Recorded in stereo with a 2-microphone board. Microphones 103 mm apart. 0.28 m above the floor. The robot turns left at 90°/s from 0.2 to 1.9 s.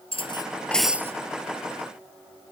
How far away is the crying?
No crying in this recording.